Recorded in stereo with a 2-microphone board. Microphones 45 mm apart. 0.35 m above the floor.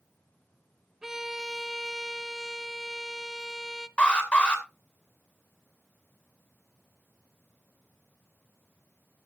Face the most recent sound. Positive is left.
turn(degrees=20)  # may be behind; listen again after turning